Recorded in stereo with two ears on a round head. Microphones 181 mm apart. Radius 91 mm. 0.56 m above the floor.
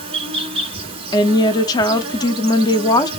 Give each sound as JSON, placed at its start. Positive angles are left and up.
{"t": 0.0, "sound": "an insect", "side_deg": -30, "distance_m": 1.8}
{"t": 1.1, "sound": "a woman speaking", "side_deg": 20, "distance_m": 0.6}